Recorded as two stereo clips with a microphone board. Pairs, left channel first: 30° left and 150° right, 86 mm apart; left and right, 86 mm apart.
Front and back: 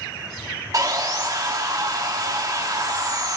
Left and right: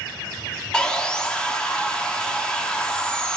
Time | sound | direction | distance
0.7 | sawing | 170° left | 1.2 m